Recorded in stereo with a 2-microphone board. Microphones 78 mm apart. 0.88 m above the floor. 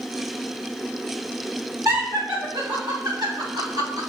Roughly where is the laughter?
Right.